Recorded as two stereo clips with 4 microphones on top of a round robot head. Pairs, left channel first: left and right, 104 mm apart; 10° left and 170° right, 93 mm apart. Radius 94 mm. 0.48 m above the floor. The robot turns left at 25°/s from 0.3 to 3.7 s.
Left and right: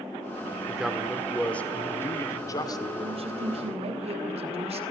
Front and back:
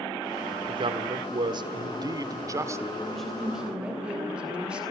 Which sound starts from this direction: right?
A woman speaking, at 3.0 s.